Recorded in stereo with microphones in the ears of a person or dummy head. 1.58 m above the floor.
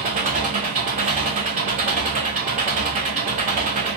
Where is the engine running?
35° right (ahead or behind), 0.7 m.